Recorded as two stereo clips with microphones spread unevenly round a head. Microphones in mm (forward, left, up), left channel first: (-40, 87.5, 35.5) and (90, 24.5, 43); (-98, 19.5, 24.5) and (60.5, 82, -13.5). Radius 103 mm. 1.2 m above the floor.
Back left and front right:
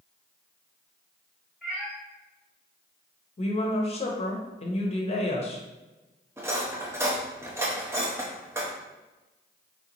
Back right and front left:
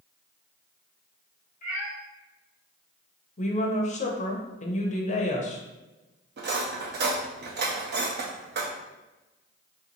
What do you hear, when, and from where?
1.6 s a cat meowing: 115° right, 1.0 m
3.4 s a woman speaking: 155° left, 0.7 m
6.4 s cutlery clinking: 40° left, 0.7 m